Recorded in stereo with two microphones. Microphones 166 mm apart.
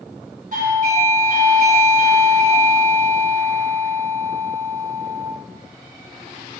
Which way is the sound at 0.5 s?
60° right (ahead or behind).